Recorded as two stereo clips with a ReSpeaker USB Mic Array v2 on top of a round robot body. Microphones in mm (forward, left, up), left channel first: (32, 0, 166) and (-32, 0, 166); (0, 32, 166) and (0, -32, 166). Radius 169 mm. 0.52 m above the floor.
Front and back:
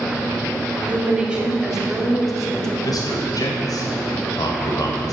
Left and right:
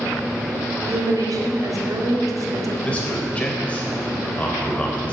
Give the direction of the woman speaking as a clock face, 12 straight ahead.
4 o'clock.